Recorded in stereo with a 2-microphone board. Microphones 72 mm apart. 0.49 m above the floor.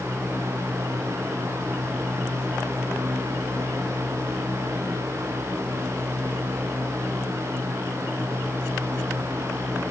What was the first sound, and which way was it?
Only background noise.